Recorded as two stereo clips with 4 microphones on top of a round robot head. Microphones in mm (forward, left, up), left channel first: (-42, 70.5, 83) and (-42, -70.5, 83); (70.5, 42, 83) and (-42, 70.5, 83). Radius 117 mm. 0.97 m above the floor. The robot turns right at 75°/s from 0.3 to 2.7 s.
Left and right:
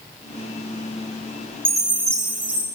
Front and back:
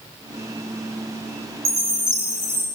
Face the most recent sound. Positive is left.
turn(degrees=-85)